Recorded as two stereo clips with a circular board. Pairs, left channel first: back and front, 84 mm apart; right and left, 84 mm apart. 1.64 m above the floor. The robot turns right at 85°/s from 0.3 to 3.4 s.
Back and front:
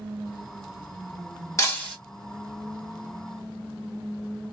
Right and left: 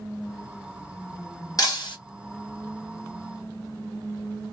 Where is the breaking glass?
130° right, 1.9 m; by 2.0 s 95° right, 1.9 m.